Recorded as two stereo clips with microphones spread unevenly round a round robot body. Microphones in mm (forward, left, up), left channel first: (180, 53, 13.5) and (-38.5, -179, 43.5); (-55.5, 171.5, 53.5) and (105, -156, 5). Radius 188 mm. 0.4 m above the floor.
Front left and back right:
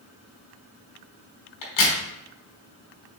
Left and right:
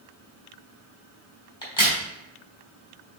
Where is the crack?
35° left, 3.5 m.